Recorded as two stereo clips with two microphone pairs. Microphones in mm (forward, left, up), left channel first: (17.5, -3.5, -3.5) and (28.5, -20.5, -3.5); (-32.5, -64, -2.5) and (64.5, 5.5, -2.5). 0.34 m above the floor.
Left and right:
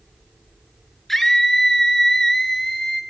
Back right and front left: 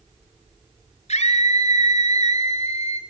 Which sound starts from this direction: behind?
A scream, at 1.1 s.